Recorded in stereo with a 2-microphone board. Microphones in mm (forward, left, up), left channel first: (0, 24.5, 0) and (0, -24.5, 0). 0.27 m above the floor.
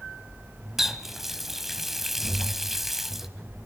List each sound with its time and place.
0.8 s a running tap: 5° right (ahead or behind), 1.1 m